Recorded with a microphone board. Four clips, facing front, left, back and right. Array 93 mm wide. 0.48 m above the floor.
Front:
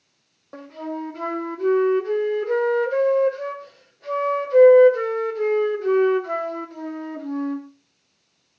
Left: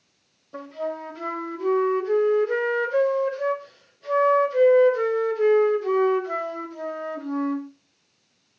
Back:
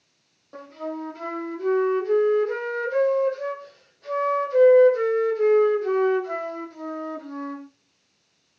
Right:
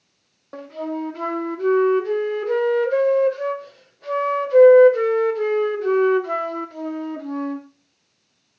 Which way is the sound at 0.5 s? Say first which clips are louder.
Right 2 dB, front 2 dB; 65° right.